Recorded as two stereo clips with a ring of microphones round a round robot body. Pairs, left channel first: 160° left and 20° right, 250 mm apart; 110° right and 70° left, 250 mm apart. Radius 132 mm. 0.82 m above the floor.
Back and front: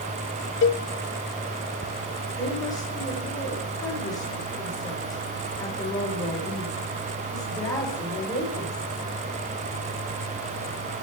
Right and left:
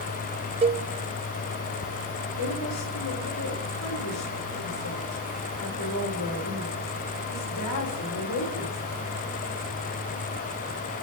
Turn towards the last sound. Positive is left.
turn(degrees=-125)